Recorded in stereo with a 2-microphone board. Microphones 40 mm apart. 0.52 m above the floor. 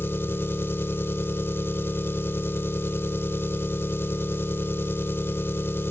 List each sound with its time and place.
0.0 s an engine running: 65° left (ahead or behind), 0.8 m